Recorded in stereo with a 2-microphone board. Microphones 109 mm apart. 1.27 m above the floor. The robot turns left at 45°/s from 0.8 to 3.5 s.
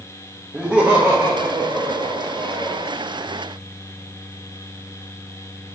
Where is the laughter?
15° right, 1.0 m; by 2.9 s 110° right, 1.0 m.